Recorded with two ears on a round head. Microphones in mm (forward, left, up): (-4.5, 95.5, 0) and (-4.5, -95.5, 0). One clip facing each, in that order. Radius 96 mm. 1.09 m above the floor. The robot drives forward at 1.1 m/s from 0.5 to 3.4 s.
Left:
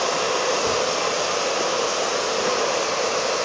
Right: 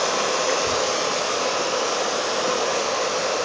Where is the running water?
30° right (ahead or behind), 1.5 m; by 3.5 s 10° right (ahead or behind), 4.5 m.